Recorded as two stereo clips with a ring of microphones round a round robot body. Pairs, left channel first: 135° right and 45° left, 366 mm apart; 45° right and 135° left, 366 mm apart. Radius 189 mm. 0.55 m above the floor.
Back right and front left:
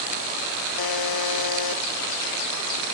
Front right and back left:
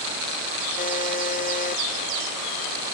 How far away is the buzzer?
About 1.5 m.